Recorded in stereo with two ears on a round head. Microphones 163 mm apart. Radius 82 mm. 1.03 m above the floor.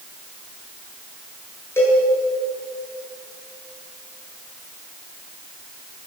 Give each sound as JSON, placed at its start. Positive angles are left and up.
{"t": 1.8, "sound": "a cowbell", "side_deg": 15, "distance_m": 8.5}